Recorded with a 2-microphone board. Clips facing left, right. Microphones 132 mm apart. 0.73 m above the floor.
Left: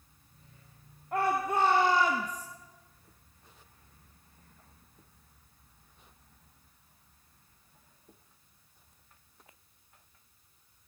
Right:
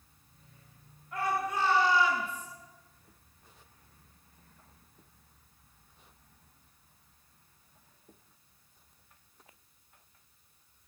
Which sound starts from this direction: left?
A shout, at 1.1 s.